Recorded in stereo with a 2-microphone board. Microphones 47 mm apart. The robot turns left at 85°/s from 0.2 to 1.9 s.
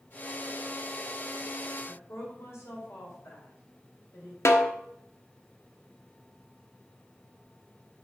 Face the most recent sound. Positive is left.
turn(degrees=80)